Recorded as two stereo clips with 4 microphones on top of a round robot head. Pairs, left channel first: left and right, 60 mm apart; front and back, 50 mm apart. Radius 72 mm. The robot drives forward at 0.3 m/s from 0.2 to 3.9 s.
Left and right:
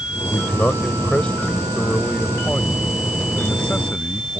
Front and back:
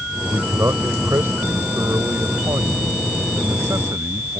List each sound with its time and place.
0.3 s a man speaking: 155° left; by 4.4 s 160° left